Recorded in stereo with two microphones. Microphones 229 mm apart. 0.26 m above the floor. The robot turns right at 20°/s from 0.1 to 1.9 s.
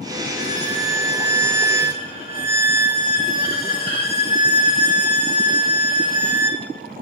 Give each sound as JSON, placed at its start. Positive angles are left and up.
{"t": 0.4, "sound": "a violin", "azimuth_deg": 105, "distance_m": 3.5}